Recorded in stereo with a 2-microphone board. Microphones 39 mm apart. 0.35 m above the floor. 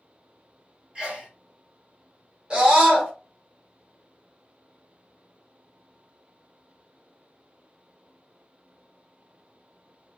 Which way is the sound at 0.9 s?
25° right (ahead or behind).